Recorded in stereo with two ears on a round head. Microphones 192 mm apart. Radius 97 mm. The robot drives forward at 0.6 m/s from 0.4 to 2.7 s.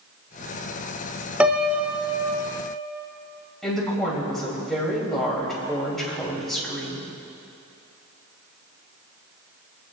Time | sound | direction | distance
1.4 | a piano | 5° right (ahead or behind) | 0.8 m
3.6 | a woman speaking | centre (ahead or behind) | 5 m